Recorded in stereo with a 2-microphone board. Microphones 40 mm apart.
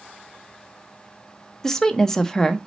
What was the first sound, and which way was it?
A woman speaking, 10° left (ahead or behind).